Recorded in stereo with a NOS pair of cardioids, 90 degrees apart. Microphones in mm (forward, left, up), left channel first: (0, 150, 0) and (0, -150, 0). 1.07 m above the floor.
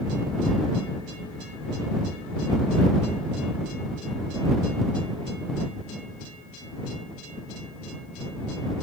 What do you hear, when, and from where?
Only background noise.